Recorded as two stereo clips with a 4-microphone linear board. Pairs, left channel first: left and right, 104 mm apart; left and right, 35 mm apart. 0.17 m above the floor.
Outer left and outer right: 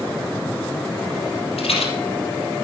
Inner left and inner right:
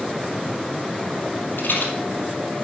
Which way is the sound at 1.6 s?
70° left (ahead or behind).